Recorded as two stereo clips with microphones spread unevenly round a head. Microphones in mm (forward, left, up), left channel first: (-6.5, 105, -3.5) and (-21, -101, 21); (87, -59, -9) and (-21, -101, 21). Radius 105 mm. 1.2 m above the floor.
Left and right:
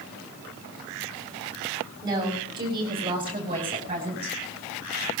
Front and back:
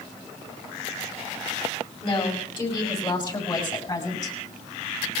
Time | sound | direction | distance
2.0 | a woman speaking | 25° right | 7 m